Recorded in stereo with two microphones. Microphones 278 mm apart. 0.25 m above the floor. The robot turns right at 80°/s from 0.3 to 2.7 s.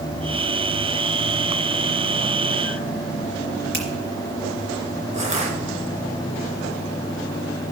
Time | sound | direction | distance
3.7 | a finger snap | 40° right (ahead or behind) | 3.5 m
5.1 | crushing | 25° right (ahead or behind) | 3.5 m